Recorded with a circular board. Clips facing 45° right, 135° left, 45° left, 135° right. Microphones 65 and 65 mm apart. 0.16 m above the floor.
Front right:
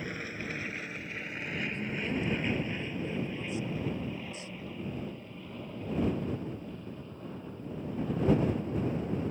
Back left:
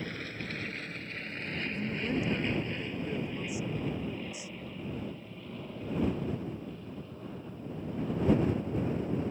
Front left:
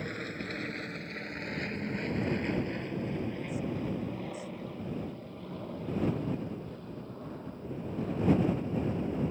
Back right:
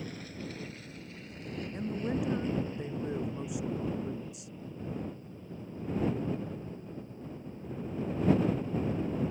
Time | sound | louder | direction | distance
0.0 | an aircraft | front right 1 dB, front left 4 dB | 30° left | ?
1.7 | a woman speaking | back left 4 dB, back right 3 dB | 150° right | ?